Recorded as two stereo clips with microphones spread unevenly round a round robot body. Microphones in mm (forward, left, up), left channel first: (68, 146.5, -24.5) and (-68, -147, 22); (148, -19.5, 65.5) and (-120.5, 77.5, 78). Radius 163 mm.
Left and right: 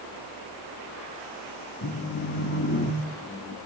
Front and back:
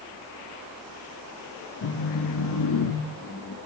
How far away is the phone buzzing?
About 1.7 m.